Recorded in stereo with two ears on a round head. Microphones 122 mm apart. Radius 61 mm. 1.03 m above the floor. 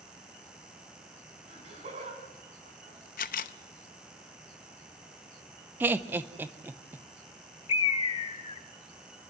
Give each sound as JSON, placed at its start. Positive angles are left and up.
{"t": 1.5, "sound": "laughter", "side_deg": -45, "distance_m": 7.0}
{"t": 3.2, "sound": "a camera shutter", "side_deg": 65, "distance_m": 0.6}
{"t": 5.8, "sound": "laughter", "side_deg": -15, "distance_m": 0.7}
{"t": 7.7, "sound": "a bird", "side_deg": 40, "distance_m": 0.9}